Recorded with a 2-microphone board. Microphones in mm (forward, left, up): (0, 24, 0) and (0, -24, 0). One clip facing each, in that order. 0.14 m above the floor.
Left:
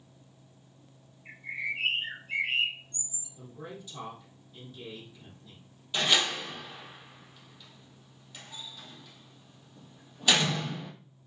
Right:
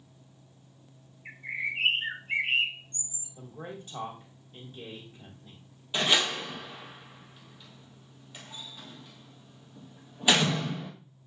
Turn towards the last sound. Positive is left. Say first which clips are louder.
# right 1 dB
turn(degrees=-15)  # may be behind; listen again after turning